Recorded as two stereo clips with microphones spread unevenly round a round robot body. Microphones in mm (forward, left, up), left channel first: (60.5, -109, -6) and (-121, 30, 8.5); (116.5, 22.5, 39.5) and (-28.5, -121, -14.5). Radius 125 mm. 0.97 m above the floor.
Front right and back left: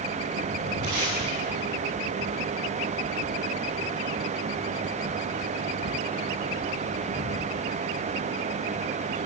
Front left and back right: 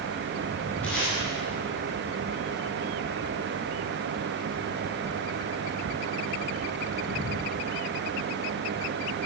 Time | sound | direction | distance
0.8 | tape being pulled | 130° left | 9.5 m